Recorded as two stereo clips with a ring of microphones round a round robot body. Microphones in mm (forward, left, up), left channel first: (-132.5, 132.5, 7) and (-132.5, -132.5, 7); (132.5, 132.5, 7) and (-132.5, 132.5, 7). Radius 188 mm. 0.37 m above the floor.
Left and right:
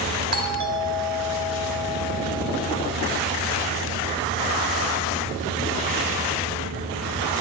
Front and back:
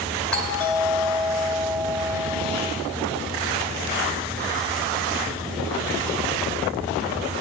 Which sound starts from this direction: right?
A doorbell, at 0.3 s.